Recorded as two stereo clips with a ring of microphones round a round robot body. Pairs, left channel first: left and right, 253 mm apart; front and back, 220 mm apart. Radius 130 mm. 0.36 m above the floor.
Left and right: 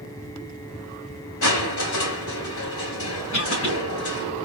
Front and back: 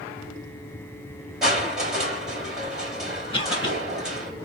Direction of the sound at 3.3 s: 65° left.